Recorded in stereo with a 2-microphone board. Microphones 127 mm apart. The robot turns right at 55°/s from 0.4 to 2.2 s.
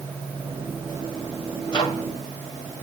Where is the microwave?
40° left (ahead or behind), 5 m; by 2.0 s 20° left (ahead or behind), 5 m.